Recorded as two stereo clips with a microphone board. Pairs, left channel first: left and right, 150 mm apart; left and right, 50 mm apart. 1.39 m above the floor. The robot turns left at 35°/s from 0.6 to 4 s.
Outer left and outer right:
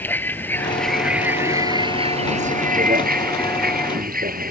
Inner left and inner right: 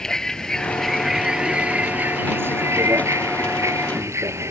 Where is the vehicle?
10° left; by 4.5 s 105° right.